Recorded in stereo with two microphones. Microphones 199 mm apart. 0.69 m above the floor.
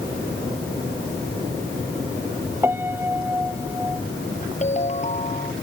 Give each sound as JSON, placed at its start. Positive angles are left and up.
{"t": 2.6, "sound": "a piano", "side_deg": -10}
{"t": 4.6, "sound": "a ringtone", "side_deg": 35}